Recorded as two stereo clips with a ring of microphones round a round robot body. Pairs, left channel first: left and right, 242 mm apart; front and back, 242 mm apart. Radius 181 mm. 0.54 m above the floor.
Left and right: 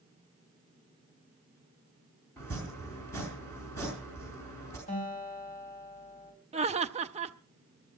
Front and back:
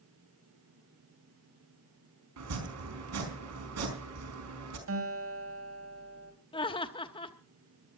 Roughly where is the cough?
No cough in this recording.